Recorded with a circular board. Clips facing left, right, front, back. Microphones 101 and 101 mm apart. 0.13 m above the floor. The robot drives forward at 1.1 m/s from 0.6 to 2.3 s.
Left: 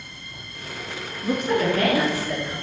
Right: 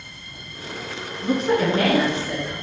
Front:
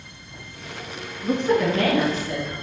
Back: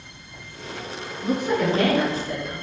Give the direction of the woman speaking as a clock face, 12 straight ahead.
3 o'clock.